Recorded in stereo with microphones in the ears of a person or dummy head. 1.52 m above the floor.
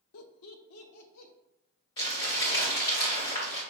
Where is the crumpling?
30° left (ahead or behind), 1.9 m.